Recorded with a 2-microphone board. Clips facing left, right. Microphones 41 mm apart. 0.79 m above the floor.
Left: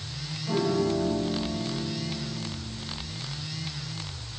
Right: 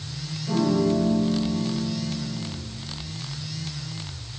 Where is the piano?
10° left (ahead or behind), 2 m.